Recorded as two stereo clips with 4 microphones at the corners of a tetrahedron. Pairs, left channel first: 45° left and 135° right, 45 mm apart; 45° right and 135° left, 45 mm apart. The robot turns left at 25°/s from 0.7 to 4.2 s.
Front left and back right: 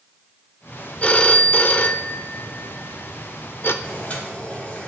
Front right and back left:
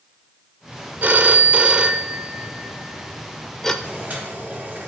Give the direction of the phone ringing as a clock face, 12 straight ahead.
9 o'clock.